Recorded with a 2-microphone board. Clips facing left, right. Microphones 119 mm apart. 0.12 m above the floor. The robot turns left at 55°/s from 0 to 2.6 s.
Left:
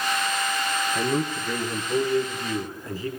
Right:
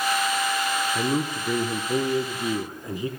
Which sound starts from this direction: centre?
A man speaking, at 0.9 s.